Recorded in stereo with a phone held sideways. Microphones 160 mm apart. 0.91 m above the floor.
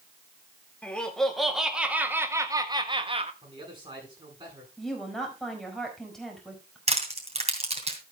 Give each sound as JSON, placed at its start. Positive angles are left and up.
{"t": 0.8, "sound": "laughter", "side_deg": 5, "distance_m": 1.9}
{"t": 3.4, "sound": "a man speaking", "side_deg": -30, "distance_m": 8.5}
{"t": 4.8, "sound": "a woman speaking", "side_deg": 0, "distance_m": 5.0}
{"t": 6.9, "sound": "crushing", "side_deg": -40, "distance_m": 2.5}